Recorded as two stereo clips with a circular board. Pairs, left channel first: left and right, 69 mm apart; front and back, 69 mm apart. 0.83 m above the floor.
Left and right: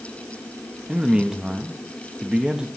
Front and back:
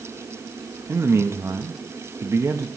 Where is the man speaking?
160° right, 0.7 m.